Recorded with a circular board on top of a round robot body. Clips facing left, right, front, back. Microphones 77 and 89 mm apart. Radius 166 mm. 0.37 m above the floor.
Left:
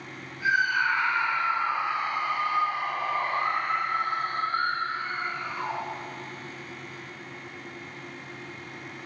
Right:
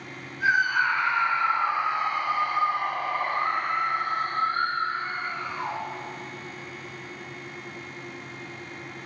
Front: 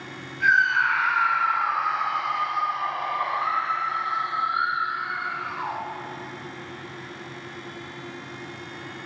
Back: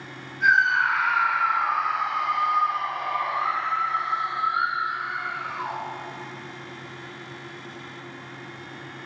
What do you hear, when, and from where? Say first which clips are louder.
0.4 s a scream: right 2 dB, even; 110° right, 4 m; by 5.8 s 10° right, 5.5 m